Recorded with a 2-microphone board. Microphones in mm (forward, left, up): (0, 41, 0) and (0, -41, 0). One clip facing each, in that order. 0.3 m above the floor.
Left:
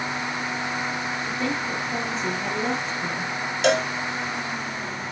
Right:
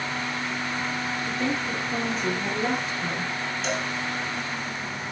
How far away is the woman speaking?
About 6 m.